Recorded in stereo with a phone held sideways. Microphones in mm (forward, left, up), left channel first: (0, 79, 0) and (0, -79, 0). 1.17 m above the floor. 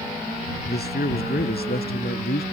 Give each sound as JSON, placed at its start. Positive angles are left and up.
{"t": 0.7, "sound": "a man speaking", "side_deg": 85}